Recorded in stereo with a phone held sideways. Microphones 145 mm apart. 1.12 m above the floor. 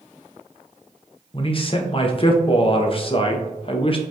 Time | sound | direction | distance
1.3 | a man speaking | 40° left (ahead or behind) | 0.6 m